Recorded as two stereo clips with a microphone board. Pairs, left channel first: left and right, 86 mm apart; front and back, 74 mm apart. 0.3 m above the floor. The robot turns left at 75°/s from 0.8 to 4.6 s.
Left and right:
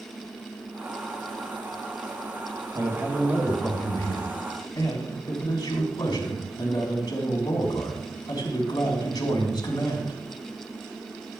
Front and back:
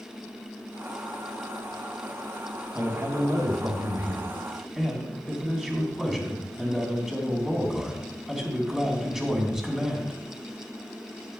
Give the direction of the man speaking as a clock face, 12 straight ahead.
4 o'clock.